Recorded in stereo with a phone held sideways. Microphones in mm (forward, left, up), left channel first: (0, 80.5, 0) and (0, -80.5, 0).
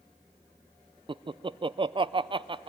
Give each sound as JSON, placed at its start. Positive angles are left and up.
{"t": 1.1, "sound": "laughter", "side_deg": -30, "distance_m": 0.5}